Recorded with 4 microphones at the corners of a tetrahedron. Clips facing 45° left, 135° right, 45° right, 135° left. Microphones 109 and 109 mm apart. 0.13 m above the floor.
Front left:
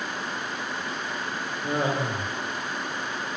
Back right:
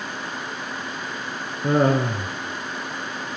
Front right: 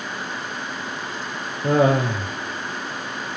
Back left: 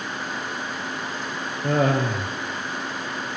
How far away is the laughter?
About 3 m.